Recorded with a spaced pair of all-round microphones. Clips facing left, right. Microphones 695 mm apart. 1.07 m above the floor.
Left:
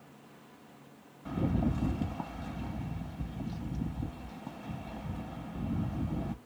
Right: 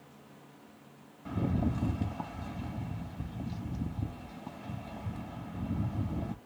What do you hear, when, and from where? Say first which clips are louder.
1.2 s a rattle: left 1 dB; centre (ahead or behind), 0.6 m